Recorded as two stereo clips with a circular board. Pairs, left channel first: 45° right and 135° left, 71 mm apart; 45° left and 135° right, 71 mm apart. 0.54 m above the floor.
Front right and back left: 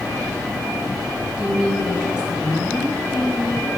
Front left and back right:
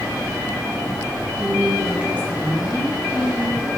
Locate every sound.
1.4 s a woman speaking: 165° right, 1.1 m